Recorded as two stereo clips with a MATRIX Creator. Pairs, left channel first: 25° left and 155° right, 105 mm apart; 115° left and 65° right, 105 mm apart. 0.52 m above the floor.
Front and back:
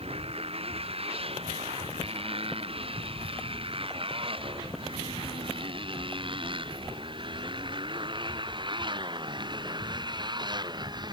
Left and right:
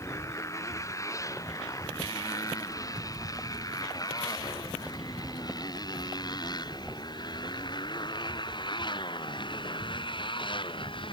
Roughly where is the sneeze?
I don't hear a sneeze.